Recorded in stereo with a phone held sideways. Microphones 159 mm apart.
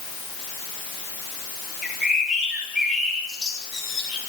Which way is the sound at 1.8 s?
5° right (ahead or behind).